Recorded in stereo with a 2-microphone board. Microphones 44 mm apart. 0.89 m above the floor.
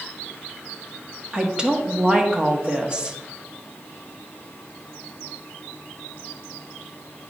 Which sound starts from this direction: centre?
A woman speaking, at 1.3 s.